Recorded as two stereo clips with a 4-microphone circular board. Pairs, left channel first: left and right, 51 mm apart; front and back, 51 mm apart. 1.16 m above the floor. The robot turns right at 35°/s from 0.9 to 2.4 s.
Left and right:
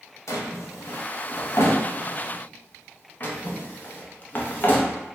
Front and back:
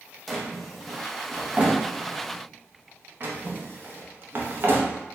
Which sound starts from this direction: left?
A drawer, at 0.3 s.